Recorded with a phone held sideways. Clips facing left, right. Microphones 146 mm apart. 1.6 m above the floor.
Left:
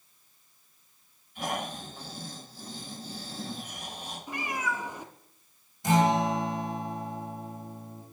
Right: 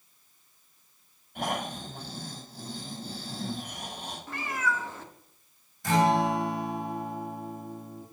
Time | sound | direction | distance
1.4 | snoring | 65° right (ahead or behind) | 7 m
4.3 | a cat meowing | 15° left (ahead or behind) | 1.2 m
5.8 | a guitar | 20° left (ahead or behind) | 3.5 m